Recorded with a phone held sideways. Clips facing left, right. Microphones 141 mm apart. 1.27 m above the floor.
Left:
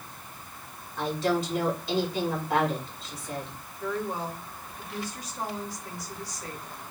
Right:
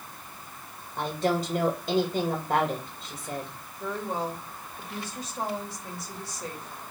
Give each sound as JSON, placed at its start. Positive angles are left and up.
{"t": 1.0, "sound": "a woman speaking", "side_deg": -40, "distance_m": 2.0}
{"t": 3.8, "sound": "a woman speaking", "side_deg": -25, "distance_m": 3.0}